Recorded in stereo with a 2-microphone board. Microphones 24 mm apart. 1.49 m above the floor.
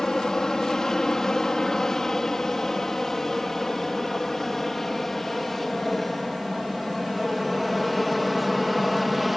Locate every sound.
0.0 s an aircraft: 25° left (ahead or behind); by 9.4 s 5° right (ahead or behind)